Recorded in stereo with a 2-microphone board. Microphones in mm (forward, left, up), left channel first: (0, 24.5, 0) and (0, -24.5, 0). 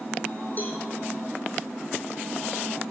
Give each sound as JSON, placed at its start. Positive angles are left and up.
{"t": 0.6, "sound": "a cowbell", "side_deg": 35, "distance_m": 3.5}